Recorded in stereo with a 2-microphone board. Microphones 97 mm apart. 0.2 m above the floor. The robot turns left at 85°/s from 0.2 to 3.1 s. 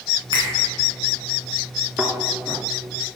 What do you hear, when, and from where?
0.3 s a finger snap: 55° right (ahead or behind), 2 m; by 0.5 s 50° right (ahead or behind), 2 m
2.0 s a thud: 10° right (ahead or behind), 1.0 m; by 2.1 s 25° right (ahead or behind), 1.0 m